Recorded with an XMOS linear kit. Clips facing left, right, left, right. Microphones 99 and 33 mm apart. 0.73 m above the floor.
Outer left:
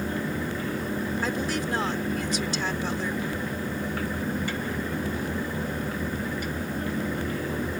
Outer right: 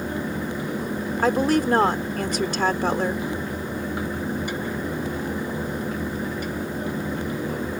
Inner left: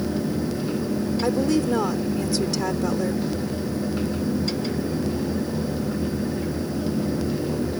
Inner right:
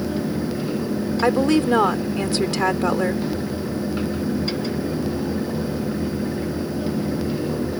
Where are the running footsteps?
I don't hear running footsteps.